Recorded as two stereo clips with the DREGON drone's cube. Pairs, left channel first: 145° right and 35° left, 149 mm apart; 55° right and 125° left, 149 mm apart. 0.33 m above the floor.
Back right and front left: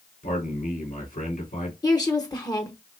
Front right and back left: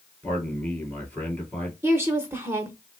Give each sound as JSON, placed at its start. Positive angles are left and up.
{"t": 0.2, "sound": "a man speaking", "azimuth_deg": -140, "distance_m": 3.5}
{"t": 1.8, "sound": "a woman speaking", "azimuth_deg": 180, "distance_m": 0.9}